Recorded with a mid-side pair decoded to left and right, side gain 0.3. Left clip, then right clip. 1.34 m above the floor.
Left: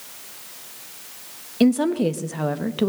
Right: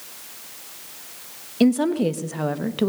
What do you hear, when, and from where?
1.6 s a woman speaking: straight ahead, 1.6 m